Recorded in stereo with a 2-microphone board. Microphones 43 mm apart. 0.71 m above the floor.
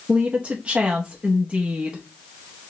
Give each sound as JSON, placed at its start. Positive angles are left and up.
{"t": 0.1, "sound": "a woman speaking", "side_deg": -30, "distance_m": 0.7}